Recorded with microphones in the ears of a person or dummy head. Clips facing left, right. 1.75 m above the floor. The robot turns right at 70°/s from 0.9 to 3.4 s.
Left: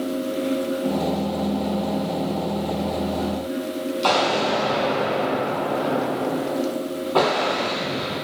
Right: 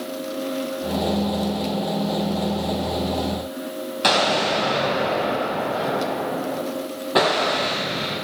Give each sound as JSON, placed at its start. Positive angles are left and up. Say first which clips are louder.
{"t": 4.0, "sound": "an explosion", "louder": "right 1 dB", "side_deg": -25, "distance_m": 3.0}